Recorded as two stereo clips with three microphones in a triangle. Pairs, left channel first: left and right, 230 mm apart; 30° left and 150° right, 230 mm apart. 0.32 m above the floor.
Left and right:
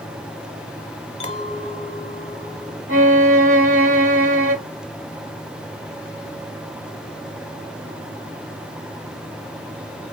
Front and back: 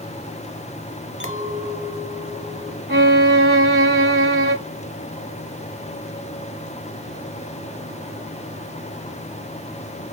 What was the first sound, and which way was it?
A clink, 35° left.